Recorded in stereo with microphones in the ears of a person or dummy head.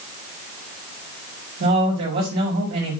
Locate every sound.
1.6 s a man speaking: 60° right (ahead or behind), 3 m